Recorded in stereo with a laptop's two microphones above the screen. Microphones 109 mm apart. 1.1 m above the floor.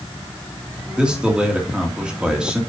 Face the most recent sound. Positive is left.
turn(degrees=-10)  # may be behind; listen again after turning